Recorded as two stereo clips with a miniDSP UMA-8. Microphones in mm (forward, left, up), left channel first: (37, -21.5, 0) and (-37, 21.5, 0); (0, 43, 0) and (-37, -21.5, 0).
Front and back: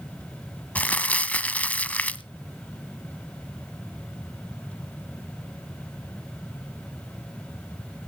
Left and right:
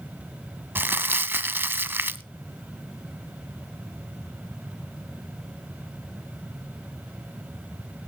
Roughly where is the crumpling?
Right.